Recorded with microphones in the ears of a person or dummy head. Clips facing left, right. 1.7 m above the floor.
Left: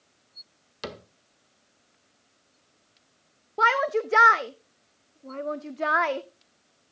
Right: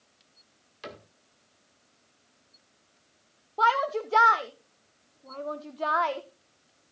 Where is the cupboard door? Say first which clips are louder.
Left 5 dB; 65° left (ahead or behind), 1.7 m.